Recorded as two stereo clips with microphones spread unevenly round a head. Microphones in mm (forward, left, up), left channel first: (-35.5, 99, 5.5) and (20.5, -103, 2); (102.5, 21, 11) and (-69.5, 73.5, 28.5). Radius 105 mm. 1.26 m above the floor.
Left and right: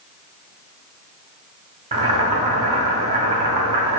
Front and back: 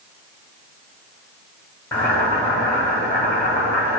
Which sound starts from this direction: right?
Boiling, at 1.9 s.